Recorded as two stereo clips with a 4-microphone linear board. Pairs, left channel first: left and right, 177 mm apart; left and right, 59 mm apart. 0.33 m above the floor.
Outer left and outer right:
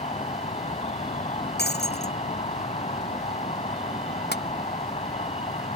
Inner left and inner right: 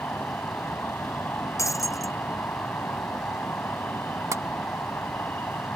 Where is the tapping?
80° right.